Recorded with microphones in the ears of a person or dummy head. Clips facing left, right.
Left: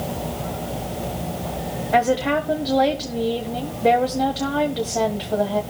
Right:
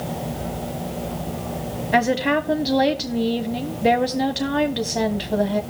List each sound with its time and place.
1.9 s a woman speaking: 15° right (ahead or behind), 1.2 m